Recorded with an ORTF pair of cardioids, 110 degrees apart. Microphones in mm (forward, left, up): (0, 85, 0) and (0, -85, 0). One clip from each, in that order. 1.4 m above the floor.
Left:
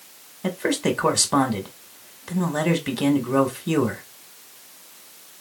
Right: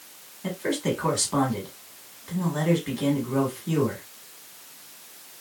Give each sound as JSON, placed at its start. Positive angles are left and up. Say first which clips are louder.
{"t": 0.4, "sound": "a man speaking", "louder": "left 4 dB", "azimuth_deg": 45, "distance_m": 1.3}